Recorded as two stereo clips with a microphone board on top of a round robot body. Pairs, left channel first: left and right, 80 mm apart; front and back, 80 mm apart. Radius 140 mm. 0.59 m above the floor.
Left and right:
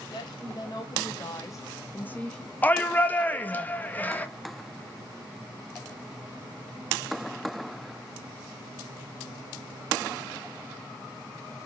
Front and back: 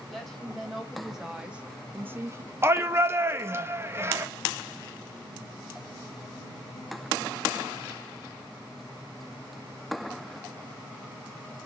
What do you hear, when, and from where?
0.1 s a woman speaking: 85° left, 2.5 m; by 2.5 s 175° left, 1.3 m
2.6 s a shout: 145° left, 1.1 m